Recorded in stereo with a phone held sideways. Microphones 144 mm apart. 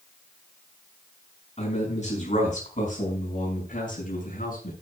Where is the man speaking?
55° left (ahead or behind), 7 m; by 4.7 s 75° left (ahead or behind), 7.5 m.